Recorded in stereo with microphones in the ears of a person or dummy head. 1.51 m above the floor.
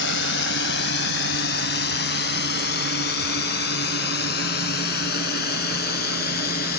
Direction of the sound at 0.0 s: 70° left (ahead or behind).